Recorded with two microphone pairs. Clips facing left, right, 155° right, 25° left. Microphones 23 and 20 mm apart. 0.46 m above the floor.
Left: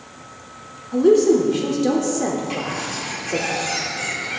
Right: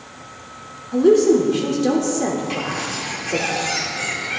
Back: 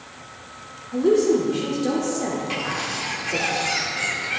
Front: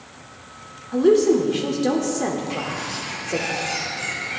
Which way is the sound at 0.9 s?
5° right.